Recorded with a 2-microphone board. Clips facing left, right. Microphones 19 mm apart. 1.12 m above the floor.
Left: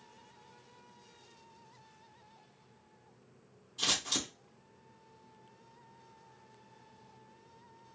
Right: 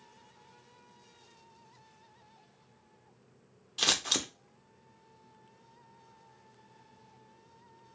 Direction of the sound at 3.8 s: 50° right (ahead or behind).